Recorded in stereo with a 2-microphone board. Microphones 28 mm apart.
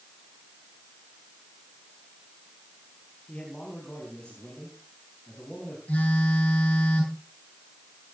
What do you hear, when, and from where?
3.3 s a man speaking: 30° left (ahead or behind), 5 m
5.9 s a phone buzzing: 55° left (ahead or behind), 9 m